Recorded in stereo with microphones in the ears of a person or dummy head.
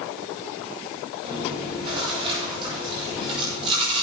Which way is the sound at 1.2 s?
25° right (ahead or behind).